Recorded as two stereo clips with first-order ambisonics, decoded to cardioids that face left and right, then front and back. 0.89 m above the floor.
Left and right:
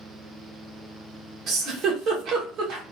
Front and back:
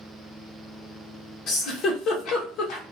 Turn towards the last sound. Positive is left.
turn(degrees=-50)